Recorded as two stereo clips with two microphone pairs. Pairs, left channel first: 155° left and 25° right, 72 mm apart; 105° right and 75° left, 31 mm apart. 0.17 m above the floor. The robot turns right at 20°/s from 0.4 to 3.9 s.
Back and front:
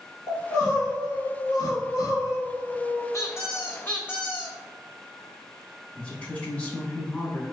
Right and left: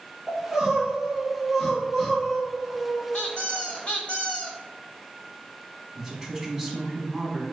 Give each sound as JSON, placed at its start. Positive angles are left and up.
{"t": 0.3, "sound": "crying", "azimuth_deg": 145, "distance_m": 1.1}
{"t": 3.1, "sound": "a squeak", "azimuth_deg": -160, "distance_m": 0.6}
{"t": 6.0, "sound": "a woman speaking", "azimuth_deg": 130, "distance_m": 1.1}